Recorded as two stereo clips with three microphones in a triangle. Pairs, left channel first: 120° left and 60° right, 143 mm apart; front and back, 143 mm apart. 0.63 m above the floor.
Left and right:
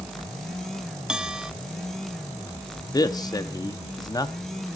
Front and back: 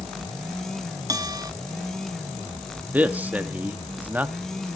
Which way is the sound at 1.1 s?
140° right.